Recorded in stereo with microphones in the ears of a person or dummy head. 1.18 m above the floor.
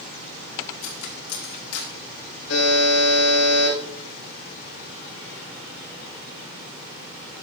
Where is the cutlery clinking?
85° left, 1.9 m.